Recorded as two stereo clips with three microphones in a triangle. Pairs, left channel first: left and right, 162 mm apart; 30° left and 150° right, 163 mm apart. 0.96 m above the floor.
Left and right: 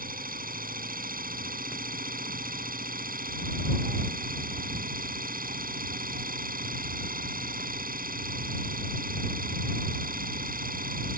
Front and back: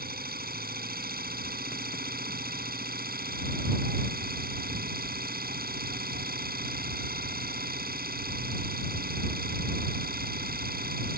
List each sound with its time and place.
0.0 s an engine running: 125° right